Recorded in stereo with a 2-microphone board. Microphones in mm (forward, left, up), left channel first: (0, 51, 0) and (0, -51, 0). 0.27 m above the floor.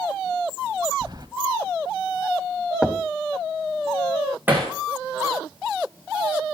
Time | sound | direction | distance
1.0 | keys jangling | 45° right (ahead or behind) | 0.9 m
2.8 | knocking | 10° right (ahead or behind) | 0.9 m
4.5 | hammering | 20° right (ahead or behind) | 7 m